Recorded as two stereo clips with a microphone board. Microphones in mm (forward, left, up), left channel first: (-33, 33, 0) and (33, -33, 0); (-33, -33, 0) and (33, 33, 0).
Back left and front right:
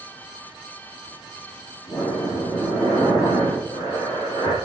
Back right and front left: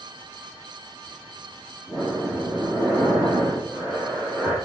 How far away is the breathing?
About 6 m.